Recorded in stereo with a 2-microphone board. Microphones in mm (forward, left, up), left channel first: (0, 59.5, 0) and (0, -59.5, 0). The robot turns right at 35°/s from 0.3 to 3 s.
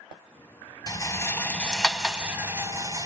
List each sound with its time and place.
0.9 s a rattle: 35° left (ahead or behind), 1.0 m; by 3.1 s 35° right (ahead or behind), 1.0 m